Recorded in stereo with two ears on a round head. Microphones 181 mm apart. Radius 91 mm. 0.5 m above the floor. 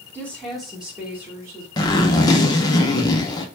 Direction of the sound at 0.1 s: 10° left (ahead or behind).